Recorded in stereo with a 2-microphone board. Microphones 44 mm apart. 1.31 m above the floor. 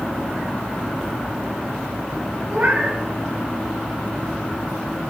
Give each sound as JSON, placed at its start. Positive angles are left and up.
{"t": 2.5, "sound": "a cat meowing", "side_deg": -50, "distance_m": 3.5}